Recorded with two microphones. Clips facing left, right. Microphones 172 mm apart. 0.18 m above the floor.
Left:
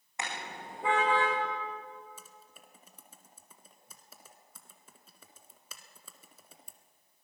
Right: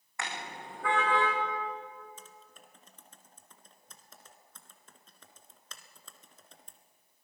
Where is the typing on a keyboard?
10° left (ahead or behind), 1.7 m.